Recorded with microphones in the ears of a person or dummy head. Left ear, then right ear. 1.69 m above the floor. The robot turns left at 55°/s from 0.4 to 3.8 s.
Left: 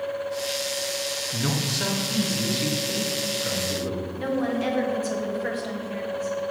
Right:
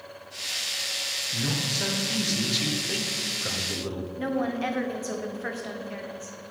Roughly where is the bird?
I don't hear a bird.